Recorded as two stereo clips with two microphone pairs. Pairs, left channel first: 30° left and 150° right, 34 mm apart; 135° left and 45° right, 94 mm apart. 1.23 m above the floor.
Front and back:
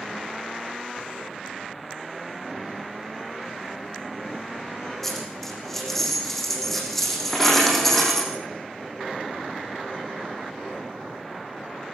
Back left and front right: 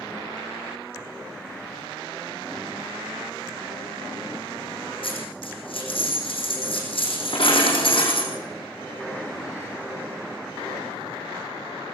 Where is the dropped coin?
110° left, 6 m.